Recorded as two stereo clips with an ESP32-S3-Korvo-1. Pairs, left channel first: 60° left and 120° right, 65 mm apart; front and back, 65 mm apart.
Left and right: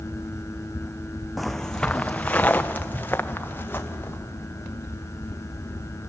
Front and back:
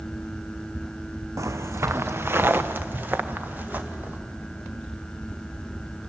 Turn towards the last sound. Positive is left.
turn(degrees=115)